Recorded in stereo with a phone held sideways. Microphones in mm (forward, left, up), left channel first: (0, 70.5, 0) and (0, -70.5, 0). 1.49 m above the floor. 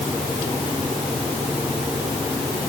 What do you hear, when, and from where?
Only background noise.